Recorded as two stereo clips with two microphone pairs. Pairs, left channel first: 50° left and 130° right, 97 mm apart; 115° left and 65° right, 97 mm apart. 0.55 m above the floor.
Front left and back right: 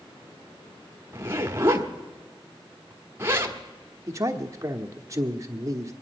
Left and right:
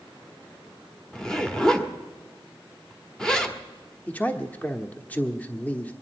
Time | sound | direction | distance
1.1 | a zipper | 165° right | 1.2 m
4.1 | a man speaking | 175° right | 1.1 m